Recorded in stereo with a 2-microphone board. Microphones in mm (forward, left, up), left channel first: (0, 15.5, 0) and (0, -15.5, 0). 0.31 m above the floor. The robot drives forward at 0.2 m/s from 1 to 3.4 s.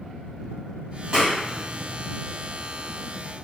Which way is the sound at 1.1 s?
25° right (ahead or behind).